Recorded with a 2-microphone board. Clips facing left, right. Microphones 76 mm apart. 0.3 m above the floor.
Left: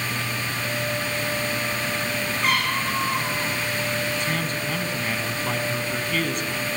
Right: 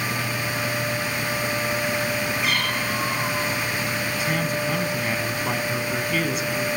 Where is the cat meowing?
40° left (ahead or behind), 10 m.